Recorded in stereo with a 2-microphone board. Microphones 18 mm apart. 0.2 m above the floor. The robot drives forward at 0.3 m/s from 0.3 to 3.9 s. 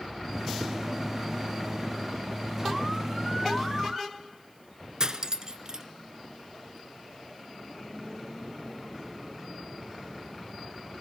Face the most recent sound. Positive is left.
turn(degrees=-35)  # may be behind; listen again after turning